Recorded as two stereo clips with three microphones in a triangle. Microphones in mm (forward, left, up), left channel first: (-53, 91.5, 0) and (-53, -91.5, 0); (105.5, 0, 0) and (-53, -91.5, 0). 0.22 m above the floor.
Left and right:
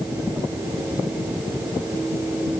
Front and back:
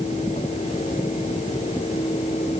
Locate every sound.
Only background noise.